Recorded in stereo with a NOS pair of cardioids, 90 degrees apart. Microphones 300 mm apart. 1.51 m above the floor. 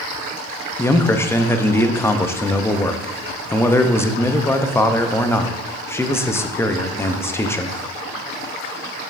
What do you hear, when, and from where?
0.8 s a man speaking: 10° left, 0.6 m